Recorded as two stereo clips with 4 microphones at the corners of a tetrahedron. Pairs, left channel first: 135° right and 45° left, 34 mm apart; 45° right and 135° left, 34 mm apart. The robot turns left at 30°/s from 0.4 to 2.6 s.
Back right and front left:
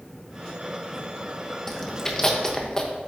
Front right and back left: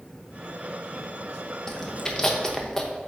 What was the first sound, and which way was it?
Chewing, 75° right.